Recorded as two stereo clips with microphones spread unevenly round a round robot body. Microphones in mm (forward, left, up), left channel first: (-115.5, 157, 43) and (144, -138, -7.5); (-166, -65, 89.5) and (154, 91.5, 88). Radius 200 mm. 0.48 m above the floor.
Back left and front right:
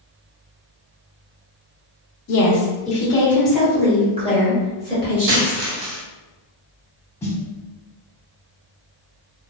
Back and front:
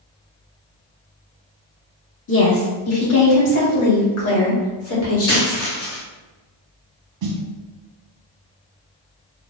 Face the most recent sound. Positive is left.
turn(degrees=45)